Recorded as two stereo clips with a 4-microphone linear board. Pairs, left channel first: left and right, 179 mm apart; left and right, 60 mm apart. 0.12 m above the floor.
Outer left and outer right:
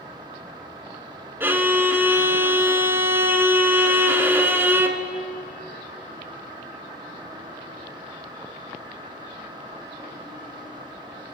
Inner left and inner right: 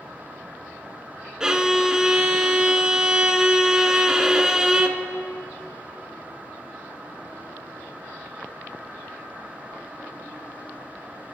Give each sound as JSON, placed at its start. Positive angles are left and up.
{"t": 1.4, "sound": "a violin", "side_deg": -10, "distance_m": 0.9}